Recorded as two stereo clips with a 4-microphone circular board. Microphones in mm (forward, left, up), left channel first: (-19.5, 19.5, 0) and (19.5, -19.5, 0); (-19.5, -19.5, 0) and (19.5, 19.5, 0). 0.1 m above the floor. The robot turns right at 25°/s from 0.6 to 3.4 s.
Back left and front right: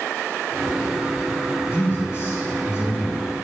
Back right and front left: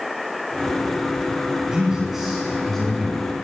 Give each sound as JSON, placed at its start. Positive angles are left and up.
{"t": 1.7, "sound": "a man speaking", "azimuth_deg": 105, "distance_m": 1.8}